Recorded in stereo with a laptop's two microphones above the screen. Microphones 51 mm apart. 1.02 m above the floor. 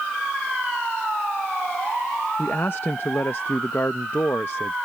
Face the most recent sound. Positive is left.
turn(degrees=50)  # may be behind; listen again after turning